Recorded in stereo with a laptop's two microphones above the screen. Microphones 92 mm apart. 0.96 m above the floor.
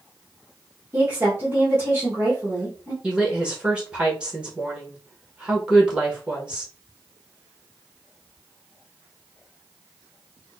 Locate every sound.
0.9 s a woman speaking: 25° right (ahead or behind), 1.1 m
3.0 s a woman speaking: 10° right (ahead or behind), 1.0 m